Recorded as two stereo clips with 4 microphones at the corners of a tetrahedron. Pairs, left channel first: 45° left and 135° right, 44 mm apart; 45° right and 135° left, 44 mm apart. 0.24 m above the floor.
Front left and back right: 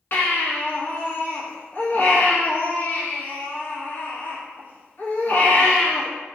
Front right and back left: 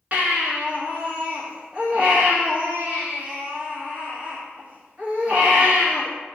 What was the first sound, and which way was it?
A baby crying, 80° left.